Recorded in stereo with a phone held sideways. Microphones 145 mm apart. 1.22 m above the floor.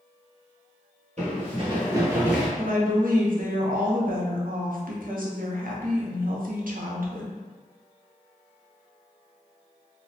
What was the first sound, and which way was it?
Running footsteps, 50° right (ahead or behind).